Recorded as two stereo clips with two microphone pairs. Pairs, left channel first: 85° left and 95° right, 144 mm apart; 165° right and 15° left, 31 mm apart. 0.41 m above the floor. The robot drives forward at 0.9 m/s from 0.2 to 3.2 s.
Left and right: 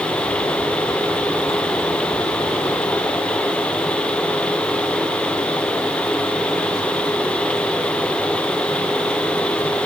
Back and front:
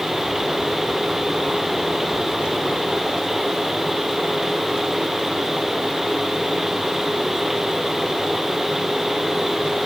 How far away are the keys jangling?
I don't hear keys jangling.